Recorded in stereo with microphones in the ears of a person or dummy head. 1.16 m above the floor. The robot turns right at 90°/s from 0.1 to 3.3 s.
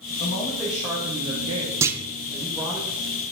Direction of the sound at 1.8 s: 10° right (ahead or behind).